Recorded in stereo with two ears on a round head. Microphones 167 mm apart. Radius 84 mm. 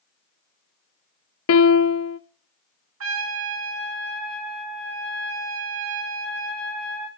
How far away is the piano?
About 0.7 m.